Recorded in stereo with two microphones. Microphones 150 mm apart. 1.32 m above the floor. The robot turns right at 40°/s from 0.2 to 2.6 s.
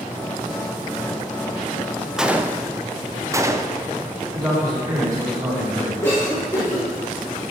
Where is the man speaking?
25° right (ahead or behind), 4.5 m.